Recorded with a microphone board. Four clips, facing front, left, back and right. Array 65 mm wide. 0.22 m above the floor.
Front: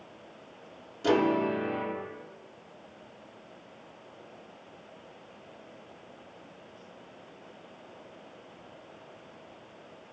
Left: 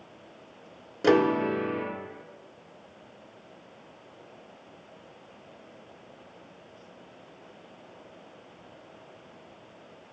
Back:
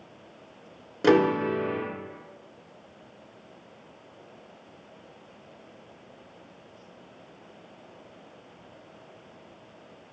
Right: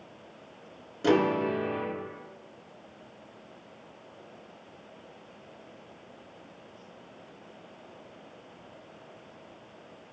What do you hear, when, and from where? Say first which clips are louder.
1.0 s a piano: left 2 dB, back 4 dB; 155° left, 0.6 m